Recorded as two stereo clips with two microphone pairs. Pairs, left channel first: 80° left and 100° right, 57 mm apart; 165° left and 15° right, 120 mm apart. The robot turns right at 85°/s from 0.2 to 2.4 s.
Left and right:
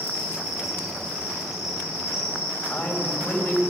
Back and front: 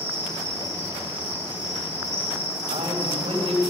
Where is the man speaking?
25° left, 4.5 m.